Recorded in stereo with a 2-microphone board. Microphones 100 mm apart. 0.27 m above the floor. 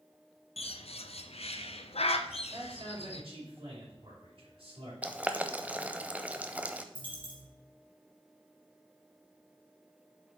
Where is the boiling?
15° right (ahead or behind), 0.7 m.